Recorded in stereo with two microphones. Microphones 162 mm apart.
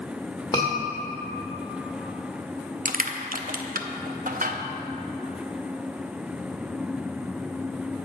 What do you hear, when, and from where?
0.5 s a scream: 20° left (ahead or behind), 2.0 m
2.9 s crushing: 60° right (ahead or behind), 0.6 m